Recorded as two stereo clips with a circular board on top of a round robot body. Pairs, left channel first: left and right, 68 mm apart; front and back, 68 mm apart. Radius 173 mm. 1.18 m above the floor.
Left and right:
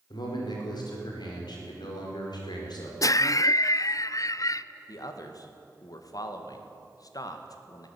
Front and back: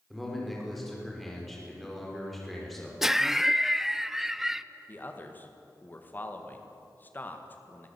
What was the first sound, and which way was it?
A man speaking, 90° left.